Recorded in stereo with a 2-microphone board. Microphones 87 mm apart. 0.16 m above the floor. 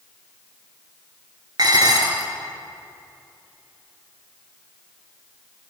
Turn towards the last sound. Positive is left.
turn(degrees=-50)  # may be behind; listen again after turning